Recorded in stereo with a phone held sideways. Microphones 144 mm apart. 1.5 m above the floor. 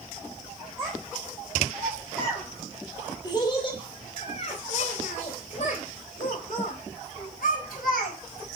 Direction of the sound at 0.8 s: 10° right (ahead or behind).